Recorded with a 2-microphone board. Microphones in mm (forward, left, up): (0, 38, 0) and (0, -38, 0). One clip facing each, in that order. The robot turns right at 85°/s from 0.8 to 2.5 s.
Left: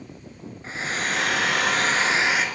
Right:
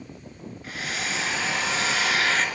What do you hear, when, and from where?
0.6 s a hair dryer: 35° left, 1.0 m; by 2.5 s 175° left, 1.0 m